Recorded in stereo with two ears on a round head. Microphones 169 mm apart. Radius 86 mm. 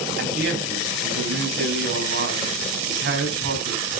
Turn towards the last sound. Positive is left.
turn(degrees=-55)  # may be behind; listen again after turning